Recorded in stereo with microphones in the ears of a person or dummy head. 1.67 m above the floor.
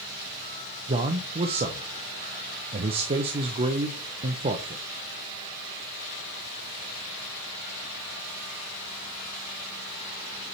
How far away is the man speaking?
About 0.6 m.